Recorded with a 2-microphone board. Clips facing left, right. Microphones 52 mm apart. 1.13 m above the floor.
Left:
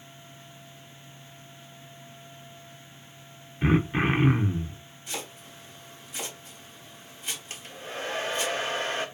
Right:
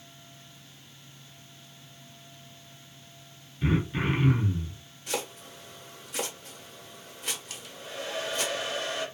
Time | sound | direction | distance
3.6 | throat clearing | 35° left (ahead or behind) | 0.6 m
5.1 | chopping | 60° right (ahead or behind) | 1.6 m
7.5 | a hair dryer | 35° left (ahead or behind) | 0.7 m